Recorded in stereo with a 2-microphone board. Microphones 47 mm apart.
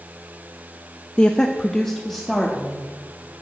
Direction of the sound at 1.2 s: 20° left (ahead or behind).